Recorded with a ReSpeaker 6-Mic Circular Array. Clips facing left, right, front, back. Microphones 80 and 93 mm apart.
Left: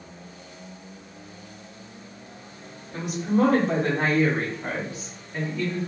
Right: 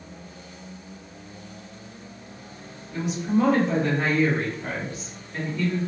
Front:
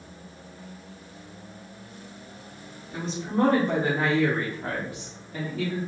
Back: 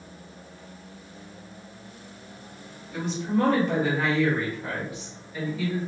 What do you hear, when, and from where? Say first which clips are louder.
2.9 s a woman speaking: even, back 2 dB; 60° left, 2.5 m; by 5.8 s 5° right, 1.7 m